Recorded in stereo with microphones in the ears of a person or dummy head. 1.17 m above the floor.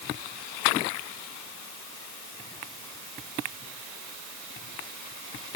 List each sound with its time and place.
Only background noise.